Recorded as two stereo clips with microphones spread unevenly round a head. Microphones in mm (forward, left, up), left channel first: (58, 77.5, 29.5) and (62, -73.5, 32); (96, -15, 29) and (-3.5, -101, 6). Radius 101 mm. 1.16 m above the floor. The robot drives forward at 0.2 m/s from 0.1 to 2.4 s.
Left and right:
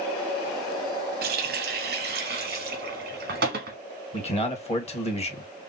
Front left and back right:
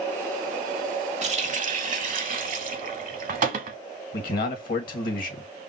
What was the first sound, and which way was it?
A running tap, 105° right.